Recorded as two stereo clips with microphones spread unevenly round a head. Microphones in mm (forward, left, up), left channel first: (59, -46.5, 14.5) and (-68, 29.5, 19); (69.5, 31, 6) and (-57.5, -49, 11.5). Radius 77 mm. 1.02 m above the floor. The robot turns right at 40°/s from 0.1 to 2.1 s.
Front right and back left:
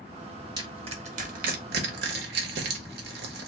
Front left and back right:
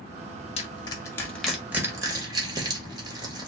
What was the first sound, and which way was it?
Crushing, 85° left.